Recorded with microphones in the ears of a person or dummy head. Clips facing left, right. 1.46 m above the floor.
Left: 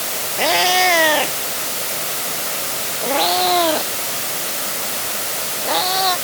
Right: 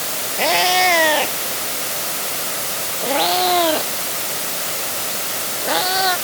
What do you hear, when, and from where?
0.4 s a cat meowing: centre (ahead or behind); by 6.1 s 5° right (ahead or behind)